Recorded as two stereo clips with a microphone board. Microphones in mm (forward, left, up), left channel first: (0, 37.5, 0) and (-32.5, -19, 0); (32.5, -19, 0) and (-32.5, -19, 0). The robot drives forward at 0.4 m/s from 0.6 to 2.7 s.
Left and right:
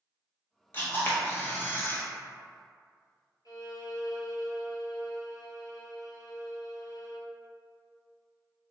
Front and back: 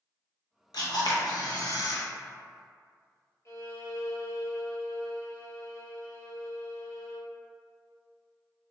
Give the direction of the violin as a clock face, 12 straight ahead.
11 o'clock.